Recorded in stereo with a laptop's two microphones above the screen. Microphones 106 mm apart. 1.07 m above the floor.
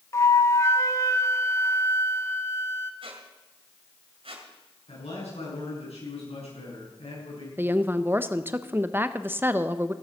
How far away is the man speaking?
About 9 m.